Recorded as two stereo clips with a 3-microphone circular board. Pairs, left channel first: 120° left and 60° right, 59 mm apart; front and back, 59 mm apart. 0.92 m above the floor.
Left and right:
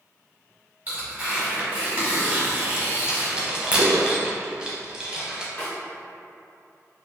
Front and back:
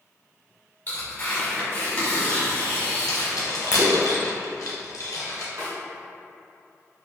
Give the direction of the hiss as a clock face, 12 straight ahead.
No hiss in this recording.